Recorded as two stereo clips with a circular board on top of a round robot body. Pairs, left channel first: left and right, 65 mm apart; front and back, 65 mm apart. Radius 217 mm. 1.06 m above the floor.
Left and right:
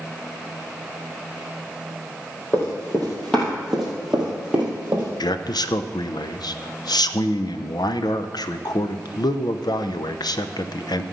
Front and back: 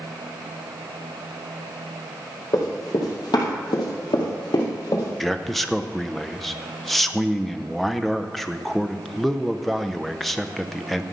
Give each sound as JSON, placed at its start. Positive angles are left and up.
{"t": 2.5, "sound": "running footsteps", "azimuth_deg": 30, "distance_m": 3.0}
{"t": 5.2, "sound": "a man speaking", "azimuth_deg": 90, "distance_m": 0.7}